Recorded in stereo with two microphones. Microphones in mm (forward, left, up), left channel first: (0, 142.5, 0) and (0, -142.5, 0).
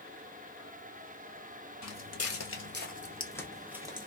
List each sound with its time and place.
1.8 s footsteps: 65° left (ahead or behind), 1.1 m; by 4.1 s 20° right (ahead or behind), 0.9 m